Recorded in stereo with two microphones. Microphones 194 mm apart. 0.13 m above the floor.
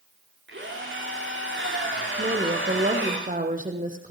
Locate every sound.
0.5 s a drill: 65° right (ahead or behind), 8 m
2.2 s a woman speaking: 40° right (ahead or behind), 4 m